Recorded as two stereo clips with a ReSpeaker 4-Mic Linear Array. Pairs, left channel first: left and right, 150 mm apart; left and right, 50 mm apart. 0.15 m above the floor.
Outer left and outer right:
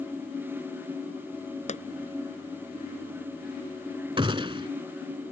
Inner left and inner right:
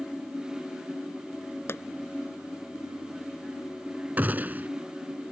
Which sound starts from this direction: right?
A gunshot, at 4.2 s.